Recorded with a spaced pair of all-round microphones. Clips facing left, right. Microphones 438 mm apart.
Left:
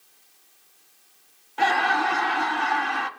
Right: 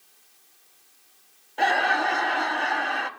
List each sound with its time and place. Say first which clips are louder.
1.6 s laughter: even; 20° left (ahead or behind), 0.8 m